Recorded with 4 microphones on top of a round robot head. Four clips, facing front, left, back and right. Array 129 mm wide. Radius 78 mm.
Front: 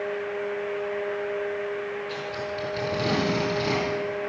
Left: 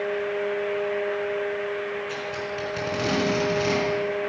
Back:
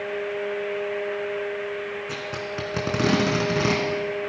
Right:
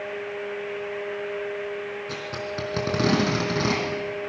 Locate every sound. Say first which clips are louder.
2.1 s tape being pulled: left 1 dB, even; 140° right, 5 m